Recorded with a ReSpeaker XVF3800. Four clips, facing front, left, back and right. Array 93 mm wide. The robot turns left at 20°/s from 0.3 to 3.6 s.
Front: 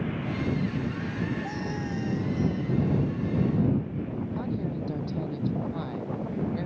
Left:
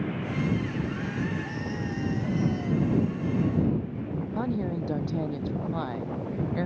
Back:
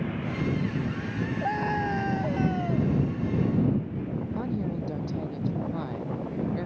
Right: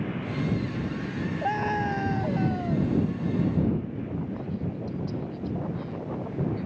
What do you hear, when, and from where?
1.4 s a scream: 125° right; by 2.9 s 155° right
4.3 s a woman speaking: 100° left